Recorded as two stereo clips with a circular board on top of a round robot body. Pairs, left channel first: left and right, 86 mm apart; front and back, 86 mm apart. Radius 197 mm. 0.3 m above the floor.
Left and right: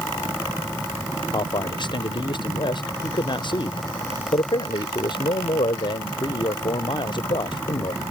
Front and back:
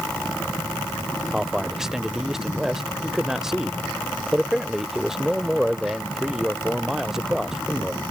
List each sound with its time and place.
1.3 s a man speaking: 95° left